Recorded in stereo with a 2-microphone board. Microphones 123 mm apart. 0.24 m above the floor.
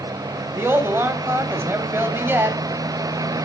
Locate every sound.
0.6 s a woman speaking: 20° right (ahead or behind), 1.0 m